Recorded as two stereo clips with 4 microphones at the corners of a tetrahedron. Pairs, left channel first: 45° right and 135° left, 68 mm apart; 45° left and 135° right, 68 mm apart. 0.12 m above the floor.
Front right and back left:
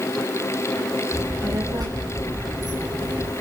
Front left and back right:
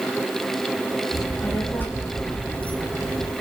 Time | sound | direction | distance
1.1 | a child speaking | 105° left | 7 m